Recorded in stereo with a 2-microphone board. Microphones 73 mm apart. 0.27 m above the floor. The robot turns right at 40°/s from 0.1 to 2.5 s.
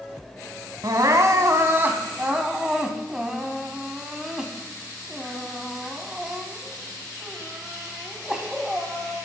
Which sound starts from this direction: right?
Crying, at 0.8 s.